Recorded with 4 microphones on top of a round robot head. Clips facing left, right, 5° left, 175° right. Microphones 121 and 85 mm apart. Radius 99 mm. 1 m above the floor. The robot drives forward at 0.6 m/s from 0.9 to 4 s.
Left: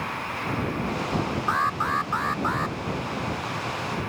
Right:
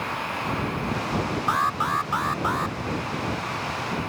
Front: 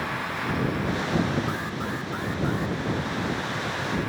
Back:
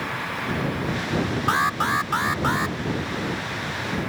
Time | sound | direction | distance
1.5 | an alarm | 170° right | ?